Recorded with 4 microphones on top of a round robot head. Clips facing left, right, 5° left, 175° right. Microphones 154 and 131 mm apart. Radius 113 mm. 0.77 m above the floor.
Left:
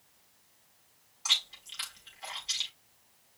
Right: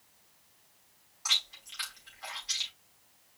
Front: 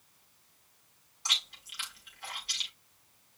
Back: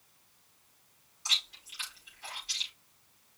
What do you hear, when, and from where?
1.2 s chewing: 25° left, 5.5 m